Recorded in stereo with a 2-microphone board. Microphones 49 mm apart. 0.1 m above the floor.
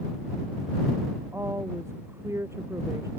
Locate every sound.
1.3 s a woman speaking: 75° right (ahead or behind); by 3.1 s 80° right